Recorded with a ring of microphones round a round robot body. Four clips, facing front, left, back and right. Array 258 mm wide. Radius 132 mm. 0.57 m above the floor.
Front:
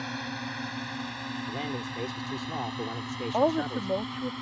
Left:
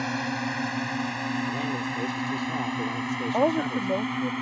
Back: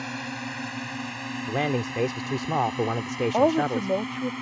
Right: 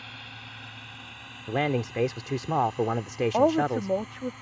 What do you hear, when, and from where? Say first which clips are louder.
0.0 s a drone: left 17 dB, back 2 dB; 95° left; by 4.4 s 105° left
1.5 s a man speaking: right 2 dB, back 11 dB; 135° right
3.3 s a woman speaking: right 1 dB, back 4 dB; 160° right